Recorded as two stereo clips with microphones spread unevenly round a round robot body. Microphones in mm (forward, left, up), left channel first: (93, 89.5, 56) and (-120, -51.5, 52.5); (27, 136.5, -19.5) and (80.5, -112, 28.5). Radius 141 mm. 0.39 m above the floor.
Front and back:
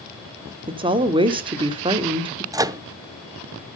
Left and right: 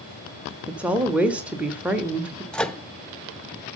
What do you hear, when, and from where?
0.7 s a woman speaking: straight behind, 1.0 m
2.5 s a microwave: 160° left, 0.6 m